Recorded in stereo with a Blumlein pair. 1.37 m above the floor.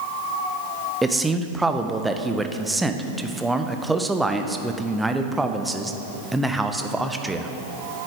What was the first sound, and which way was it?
A man speaking, 5° right.